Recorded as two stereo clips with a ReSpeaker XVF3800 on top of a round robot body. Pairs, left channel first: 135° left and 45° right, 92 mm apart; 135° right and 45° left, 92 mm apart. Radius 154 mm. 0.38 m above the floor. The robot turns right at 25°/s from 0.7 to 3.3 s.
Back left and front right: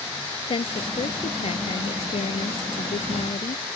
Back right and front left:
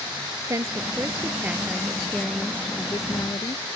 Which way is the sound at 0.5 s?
100° left.